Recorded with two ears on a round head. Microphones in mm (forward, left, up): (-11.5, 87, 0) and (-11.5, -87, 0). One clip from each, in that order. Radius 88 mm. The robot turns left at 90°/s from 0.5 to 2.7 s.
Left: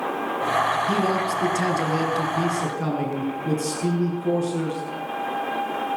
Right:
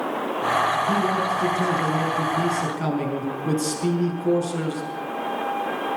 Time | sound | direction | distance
0.9 | a man speaking | 155° left | 7.5 m